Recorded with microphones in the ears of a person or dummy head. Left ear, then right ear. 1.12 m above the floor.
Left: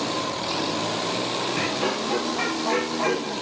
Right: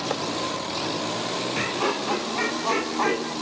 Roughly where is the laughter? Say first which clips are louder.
Even; right.